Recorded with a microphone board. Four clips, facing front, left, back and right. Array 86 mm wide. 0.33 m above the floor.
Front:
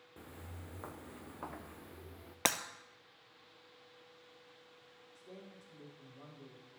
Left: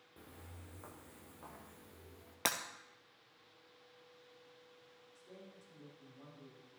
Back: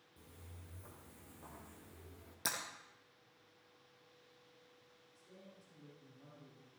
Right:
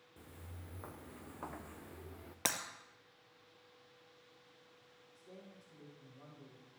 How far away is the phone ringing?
No phone ringing in this recording.